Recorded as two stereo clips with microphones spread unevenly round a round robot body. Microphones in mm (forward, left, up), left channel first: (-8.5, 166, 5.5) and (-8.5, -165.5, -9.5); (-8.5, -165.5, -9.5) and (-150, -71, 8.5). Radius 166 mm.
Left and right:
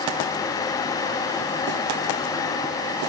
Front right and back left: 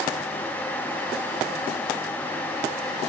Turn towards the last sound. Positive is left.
No sound to turn to.